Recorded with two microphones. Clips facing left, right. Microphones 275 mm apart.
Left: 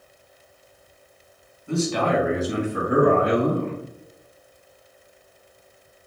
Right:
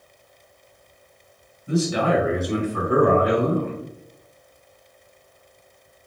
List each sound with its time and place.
1.7 s a man speaking: 20° right (ahead or behind), 1.0 m; by 3.8 s 35° left (ahead or behind), 1.3 m